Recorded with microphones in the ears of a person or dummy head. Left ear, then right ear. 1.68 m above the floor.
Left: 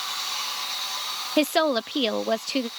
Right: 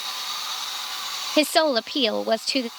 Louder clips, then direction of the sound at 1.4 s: Right 3 dB; 15° right (ahead or behind).